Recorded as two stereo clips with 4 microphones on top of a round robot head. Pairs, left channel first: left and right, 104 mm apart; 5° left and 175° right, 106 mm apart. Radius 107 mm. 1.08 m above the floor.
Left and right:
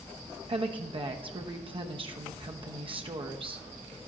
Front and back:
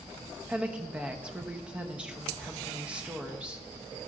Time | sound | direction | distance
0.5 | a woman speaking | 95° right | 0.9 m